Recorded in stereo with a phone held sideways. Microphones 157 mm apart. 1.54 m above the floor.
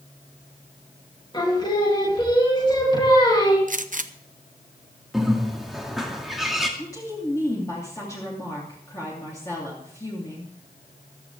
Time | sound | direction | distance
1.3 | singing | 25° left (ahead or behind) | 3 m
3.7 | a gunshot | 55° right (ahead or behind) | 0.7 m
5.1 | a bird | centre (ahead or behind) | 2 m
6.8 | a woman speaking | 20° left (ahead or behind) | 3 m